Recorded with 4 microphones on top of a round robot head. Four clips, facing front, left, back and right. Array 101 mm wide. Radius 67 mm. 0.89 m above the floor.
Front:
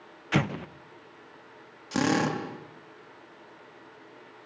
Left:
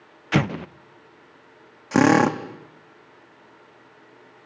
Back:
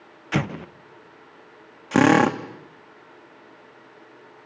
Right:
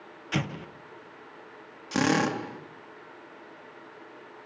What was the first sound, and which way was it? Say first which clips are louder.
An explosion: left 9 dB, back 2 dB; 100° left.